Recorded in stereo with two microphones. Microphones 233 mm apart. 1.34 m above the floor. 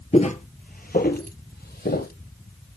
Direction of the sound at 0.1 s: 25° left (ahead or behind).